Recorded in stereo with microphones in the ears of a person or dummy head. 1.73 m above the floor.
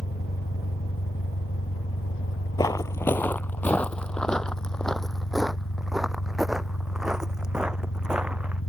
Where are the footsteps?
15° left (ahead or behind); by 8.6 s 5° right (ahead or behind).